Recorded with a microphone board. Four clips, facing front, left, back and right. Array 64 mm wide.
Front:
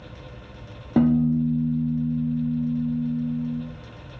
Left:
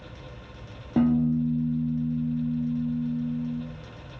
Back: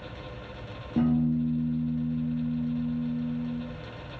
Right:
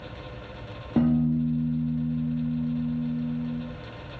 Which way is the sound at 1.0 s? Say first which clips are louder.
Even, front 5 dB; straight ahead.